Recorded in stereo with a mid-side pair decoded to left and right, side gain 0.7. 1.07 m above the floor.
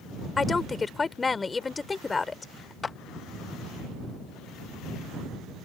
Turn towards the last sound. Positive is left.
turn(degrees=20)